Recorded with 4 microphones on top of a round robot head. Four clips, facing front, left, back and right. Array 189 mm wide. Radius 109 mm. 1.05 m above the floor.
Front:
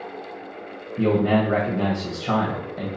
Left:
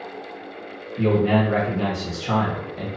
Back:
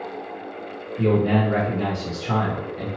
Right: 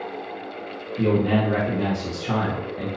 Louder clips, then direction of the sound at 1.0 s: Left 1 dB, even; 10° left.